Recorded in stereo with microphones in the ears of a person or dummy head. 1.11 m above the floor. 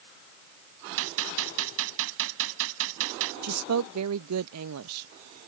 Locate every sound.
1.0 s a gunshot: 75° right (ahead or behind)
3.4 s a woman speaking: 85° right